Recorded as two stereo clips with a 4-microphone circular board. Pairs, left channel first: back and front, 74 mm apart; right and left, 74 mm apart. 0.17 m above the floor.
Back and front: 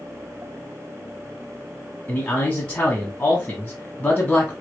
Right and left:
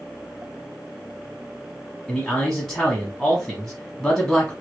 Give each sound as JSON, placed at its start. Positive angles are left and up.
{"t": 2.1, "sound": "a man speaking", "azimuth_deg": -160, "distance_m": 1.0}